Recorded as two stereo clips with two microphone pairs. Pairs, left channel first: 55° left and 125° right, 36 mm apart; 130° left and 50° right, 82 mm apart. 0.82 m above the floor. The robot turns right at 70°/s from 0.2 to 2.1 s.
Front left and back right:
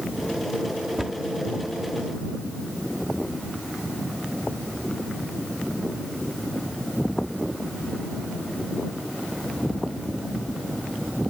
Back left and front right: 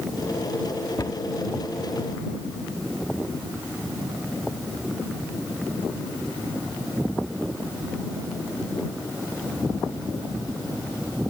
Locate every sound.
1.0 s a cupboard door: 155° left; by 1.2 s 170° left